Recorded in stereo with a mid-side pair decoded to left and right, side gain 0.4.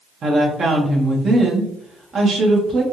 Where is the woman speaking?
55° right, 1.0 m.